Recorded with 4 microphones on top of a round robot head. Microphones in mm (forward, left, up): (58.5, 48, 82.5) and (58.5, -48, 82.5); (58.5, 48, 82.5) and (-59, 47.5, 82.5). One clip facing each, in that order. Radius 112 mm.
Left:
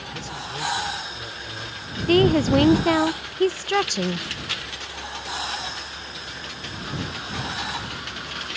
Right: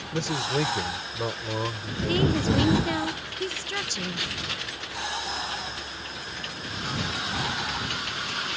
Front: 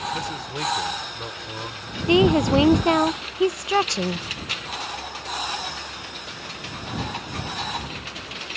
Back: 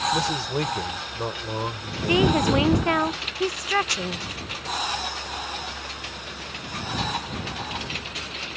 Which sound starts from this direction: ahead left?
A woman speaking, at 2.1 s.